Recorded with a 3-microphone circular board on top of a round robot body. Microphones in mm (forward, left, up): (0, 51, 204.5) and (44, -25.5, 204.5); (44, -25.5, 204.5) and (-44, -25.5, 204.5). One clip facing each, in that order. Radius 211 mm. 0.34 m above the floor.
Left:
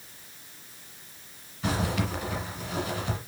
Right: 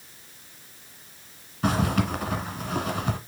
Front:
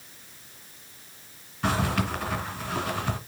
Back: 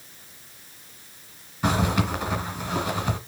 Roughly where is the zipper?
Right.